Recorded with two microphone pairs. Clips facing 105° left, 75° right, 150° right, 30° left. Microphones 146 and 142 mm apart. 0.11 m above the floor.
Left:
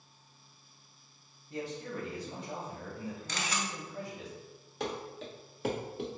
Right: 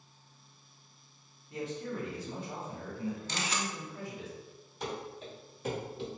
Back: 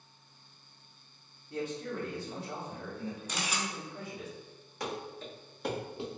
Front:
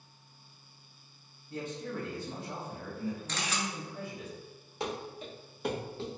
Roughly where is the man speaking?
Left.